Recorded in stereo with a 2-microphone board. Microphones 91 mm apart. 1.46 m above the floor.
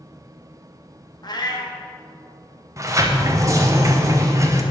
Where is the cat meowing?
45° left (ahead or behind), 0.9 m.